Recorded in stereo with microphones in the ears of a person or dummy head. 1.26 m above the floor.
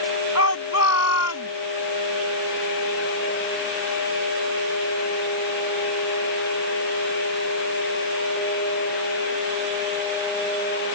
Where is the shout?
85° left.